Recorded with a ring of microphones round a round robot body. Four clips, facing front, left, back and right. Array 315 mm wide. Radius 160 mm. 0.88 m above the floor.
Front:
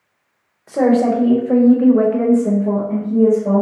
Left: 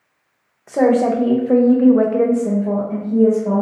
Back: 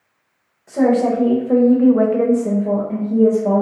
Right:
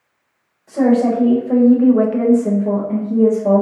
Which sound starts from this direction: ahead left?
A woman speaking, at 0.7 s.